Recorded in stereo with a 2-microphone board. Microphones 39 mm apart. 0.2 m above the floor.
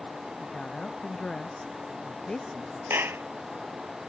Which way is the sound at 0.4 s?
20° left (ahead or behind).